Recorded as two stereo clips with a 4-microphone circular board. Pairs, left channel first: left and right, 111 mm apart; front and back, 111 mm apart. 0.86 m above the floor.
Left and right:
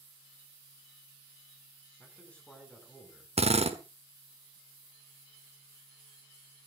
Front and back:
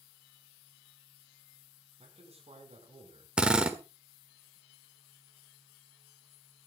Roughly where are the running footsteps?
No running footsteps in this recording.